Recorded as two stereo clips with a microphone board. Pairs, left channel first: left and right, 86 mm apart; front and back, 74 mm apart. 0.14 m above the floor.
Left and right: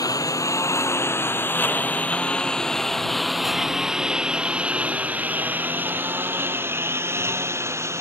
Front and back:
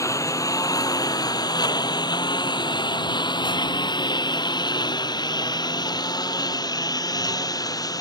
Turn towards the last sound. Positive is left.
turn(degrees=-35)